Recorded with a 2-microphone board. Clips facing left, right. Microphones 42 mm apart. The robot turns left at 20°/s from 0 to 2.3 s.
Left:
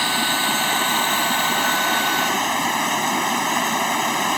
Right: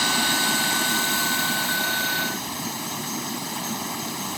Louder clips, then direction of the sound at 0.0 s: Left 2 dB; 160° left.